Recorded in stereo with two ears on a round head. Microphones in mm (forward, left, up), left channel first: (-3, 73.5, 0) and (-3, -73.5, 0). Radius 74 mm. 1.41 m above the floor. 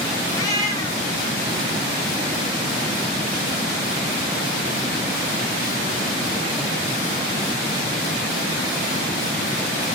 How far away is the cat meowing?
About 1.9 m.